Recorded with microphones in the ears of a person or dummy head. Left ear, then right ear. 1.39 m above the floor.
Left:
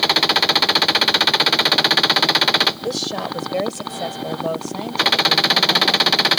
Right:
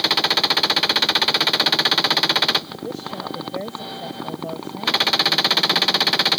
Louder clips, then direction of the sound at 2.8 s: Left 6 dB; 65° left (ahead or behind).